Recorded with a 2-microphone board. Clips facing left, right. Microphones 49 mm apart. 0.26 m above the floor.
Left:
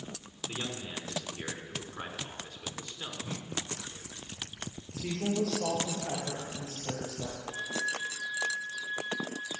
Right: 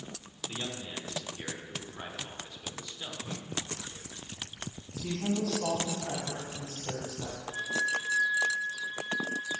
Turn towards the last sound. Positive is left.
turn(degrees=55)  # may be behind; listen again after turning